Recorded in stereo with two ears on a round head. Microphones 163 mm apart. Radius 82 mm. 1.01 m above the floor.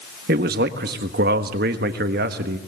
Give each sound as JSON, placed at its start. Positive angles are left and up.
{"t": 0.3, "sound": "a man speaking", "side_deg": -55, "distance_m": 1.5}